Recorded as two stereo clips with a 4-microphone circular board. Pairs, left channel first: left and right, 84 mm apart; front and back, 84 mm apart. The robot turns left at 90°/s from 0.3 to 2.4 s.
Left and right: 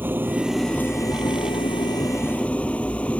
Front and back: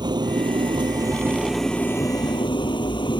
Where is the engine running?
155° right; by 3.2 s 15° left.